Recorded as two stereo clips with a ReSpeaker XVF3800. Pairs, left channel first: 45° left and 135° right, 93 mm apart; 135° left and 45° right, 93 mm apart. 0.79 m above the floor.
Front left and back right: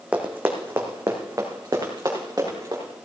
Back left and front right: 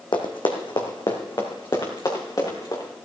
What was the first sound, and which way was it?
Running footsteps, 150° left.